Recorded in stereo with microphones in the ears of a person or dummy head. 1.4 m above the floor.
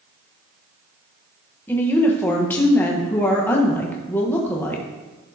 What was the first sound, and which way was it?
A woman speaking, 10° left (ahead or behind).